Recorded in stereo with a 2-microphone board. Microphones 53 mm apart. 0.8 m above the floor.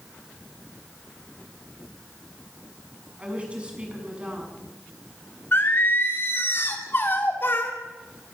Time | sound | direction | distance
3.2 | a woman speaking | 25° right (ahead or behind) | 6.5 m
5.5 | singing | 40° left (ahead or behind) | 2.5 m